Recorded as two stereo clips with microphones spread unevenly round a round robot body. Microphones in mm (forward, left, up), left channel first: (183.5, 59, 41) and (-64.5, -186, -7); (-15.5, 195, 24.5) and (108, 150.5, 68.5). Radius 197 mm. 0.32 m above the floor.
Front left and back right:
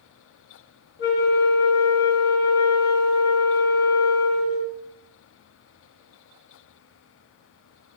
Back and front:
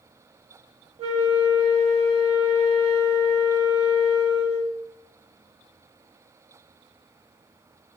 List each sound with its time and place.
1.0 s a flute: 30° left, 1.1 m